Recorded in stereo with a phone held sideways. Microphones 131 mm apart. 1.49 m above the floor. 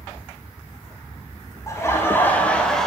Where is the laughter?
20° left (ahead or behind), 1.9 m; by 2.9 s centre (ahead or behind), 1.5 m.